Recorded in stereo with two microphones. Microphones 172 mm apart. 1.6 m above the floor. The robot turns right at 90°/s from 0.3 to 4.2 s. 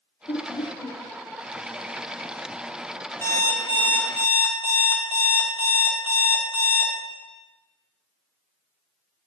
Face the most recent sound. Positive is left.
turn(degrees=120)